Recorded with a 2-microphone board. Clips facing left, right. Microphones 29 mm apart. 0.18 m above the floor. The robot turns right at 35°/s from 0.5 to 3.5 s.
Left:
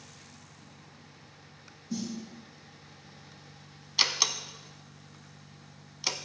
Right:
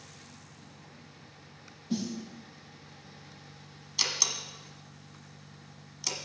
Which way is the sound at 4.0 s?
30° left (ahead or behind).